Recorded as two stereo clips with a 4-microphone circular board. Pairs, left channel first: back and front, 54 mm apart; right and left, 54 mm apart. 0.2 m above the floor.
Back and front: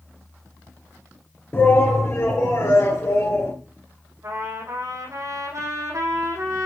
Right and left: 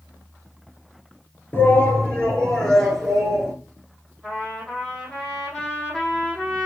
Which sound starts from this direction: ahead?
A trumpet, at 4.2 s.